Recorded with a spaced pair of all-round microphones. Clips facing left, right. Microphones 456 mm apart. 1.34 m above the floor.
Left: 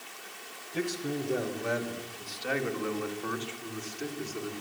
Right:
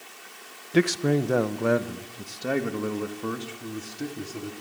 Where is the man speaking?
80° right, 0.7 m; by 4.5 s 55° right (ahead or behind), 3 m.